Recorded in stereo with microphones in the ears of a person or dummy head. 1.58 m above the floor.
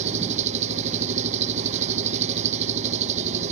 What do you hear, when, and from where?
0.0 s an engine running: 40° right (ahead or behind)